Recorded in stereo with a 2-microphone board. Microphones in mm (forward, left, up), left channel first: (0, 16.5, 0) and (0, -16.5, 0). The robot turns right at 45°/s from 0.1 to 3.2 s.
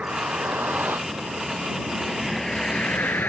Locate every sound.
0.0 s a vehicle: 45° right (ahead or behind); by 3.3 s 80° left